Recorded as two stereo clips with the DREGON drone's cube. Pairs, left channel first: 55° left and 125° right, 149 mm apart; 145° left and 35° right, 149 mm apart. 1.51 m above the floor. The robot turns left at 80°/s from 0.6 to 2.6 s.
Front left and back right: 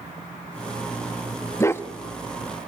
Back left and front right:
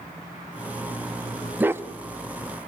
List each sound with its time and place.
1.6 s a dog barking: 25° left, 0.9 m; by 1.8 s 5° left, 0.9 m